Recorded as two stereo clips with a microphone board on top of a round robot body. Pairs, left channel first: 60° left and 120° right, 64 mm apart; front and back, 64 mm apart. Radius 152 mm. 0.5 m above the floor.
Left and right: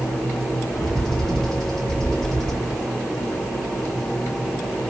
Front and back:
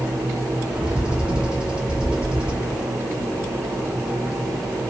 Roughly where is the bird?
Behind left.